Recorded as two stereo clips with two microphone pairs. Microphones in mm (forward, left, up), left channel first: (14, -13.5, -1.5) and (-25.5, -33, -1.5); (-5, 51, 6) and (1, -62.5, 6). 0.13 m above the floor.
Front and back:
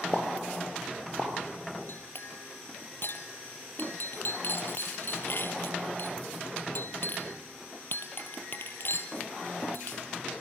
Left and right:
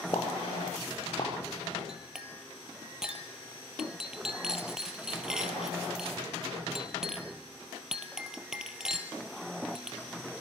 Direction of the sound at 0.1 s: 150° left.